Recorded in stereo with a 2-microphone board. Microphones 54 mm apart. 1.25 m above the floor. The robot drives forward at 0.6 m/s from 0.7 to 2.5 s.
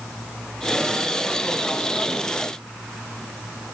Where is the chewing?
I don't hear chewing.